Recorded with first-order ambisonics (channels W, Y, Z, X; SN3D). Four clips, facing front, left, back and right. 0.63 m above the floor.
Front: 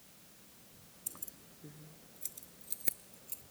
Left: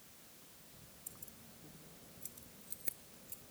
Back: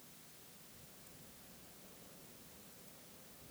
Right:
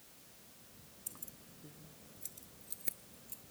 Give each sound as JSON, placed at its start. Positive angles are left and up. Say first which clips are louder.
{"t": 1.1, "sound": "keys jangling", "louder": "right 4 dB, front 8 dB", "azimuth_deg": -20}